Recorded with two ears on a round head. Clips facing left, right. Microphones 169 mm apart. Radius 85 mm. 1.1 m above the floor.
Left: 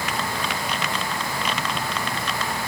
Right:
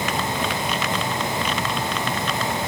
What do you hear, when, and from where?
Only background noise.